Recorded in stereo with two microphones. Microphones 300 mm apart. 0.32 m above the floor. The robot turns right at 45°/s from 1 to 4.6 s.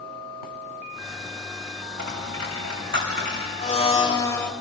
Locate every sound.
2.0 s a dropped coin: 85° right, 5 m; by 3.5 s 20° right (ahead or behind), 5 m
3.6 s a blender: 130° left, 1.0 m; by 4.5 s 175° left, 1.0 m